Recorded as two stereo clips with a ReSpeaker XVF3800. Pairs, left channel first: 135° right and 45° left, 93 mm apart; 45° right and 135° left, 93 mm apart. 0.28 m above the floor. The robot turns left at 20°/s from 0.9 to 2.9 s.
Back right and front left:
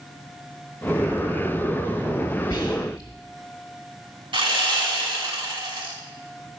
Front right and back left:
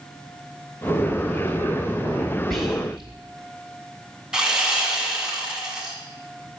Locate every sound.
2.5 s whispering: 135° right, 1.2 m; by 3.1 s 145° right, 1.2 m
4.3 s sawing: 55° left, 1.4 m